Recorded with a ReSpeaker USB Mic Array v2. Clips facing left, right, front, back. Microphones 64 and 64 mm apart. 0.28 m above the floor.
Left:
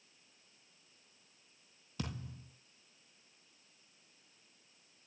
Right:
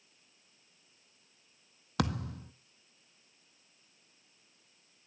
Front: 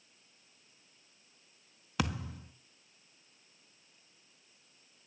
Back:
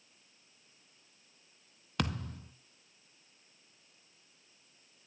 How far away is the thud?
About 0.6 m.